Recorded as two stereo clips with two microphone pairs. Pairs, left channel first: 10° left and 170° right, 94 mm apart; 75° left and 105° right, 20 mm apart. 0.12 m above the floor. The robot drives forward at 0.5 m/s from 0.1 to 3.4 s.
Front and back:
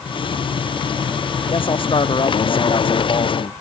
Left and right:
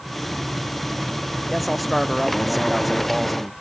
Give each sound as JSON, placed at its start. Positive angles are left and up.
{"t": 1.5, "sound": "a man speaking", "azimuth_deg": -15}